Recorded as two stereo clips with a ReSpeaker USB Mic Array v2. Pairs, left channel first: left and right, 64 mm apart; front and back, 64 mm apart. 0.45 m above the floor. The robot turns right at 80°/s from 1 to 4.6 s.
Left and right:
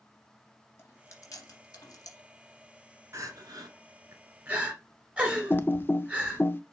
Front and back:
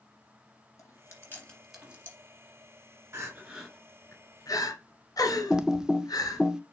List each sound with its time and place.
0.8 s chewing: 35° left, 2.5 m; by 2.2 s 130° left, 2.5 m
3.1 s crying: 135° right, 2 m; by 6.5 s 20° right, 2 m
5.5 s typing on a keyboard: 105° left, 0.5 m